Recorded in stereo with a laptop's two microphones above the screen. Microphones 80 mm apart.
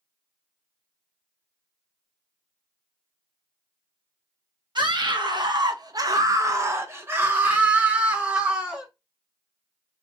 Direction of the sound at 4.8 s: 60° right (ahead or behind).